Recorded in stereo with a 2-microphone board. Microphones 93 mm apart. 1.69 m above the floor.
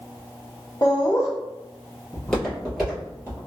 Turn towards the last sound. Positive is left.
turn(degrees=-20)  # may be behind; listen again after turning